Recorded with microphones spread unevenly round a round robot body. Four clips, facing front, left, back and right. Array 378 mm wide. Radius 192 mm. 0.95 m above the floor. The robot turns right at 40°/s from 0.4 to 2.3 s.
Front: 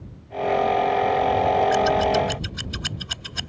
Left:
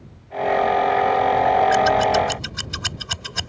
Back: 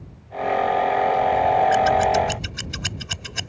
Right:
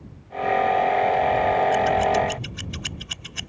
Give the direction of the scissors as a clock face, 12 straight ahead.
8 o'clock.